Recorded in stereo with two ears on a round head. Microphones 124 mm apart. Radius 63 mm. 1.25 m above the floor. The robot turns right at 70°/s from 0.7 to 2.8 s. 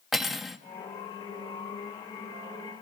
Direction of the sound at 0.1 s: Centre (ahead or behind).